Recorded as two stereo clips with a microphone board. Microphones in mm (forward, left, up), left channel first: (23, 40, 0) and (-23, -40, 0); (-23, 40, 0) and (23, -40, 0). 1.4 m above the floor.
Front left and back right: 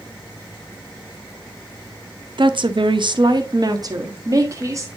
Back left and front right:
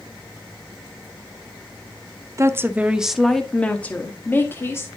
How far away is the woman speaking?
About 0.6 m.